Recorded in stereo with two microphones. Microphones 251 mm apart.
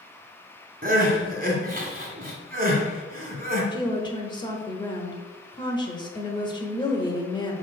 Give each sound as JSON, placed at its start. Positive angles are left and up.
{"t": 0.8, "sound": "crying", "side_deg": -35, "distance_m": 1.5}
{"t": 3.7, "sound": "a woman speaking", "side_deg": 20, "distance_m": 1.0}